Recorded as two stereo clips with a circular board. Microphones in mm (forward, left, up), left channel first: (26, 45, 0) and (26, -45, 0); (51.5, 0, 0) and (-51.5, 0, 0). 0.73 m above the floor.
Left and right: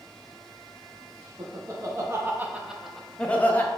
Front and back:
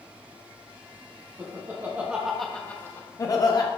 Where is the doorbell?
I don't hear a doorbell.